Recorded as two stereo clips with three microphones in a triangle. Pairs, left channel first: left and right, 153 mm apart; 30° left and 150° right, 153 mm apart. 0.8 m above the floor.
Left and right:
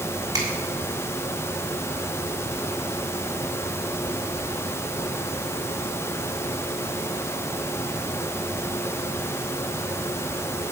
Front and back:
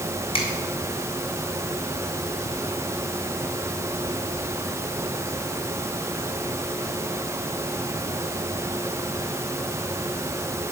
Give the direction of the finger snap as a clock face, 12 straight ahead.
1 o'clock.